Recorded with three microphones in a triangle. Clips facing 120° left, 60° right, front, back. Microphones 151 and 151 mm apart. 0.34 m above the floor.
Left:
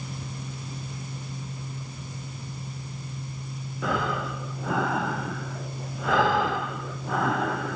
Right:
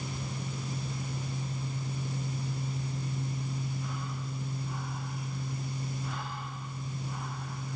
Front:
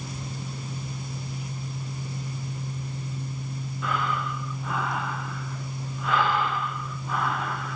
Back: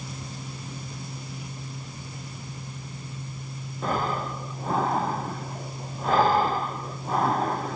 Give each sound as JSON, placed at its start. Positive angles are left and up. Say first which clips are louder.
{"t": 3.8, "sound": "breathing", "louder": "left 11 dB, back 2 dB", "azimuth_deg": 125}